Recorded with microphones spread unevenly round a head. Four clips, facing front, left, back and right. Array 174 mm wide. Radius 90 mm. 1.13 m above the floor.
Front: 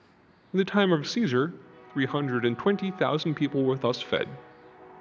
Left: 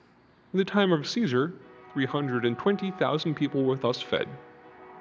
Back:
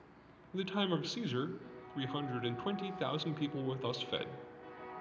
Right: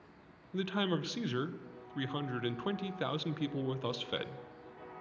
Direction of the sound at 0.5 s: 45° left.